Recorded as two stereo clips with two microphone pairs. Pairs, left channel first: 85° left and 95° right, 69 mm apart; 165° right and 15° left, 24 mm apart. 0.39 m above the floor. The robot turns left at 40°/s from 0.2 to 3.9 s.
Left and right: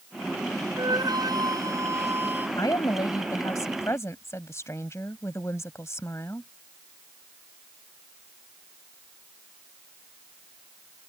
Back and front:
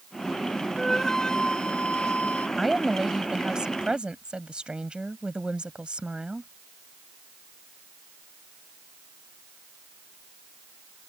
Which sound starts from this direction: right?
A flute, at 0.8 s.